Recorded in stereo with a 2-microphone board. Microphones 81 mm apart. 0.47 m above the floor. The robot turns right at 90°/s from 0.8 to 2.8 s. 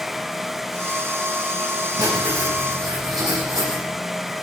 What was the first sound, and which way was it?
Writing, 130° right.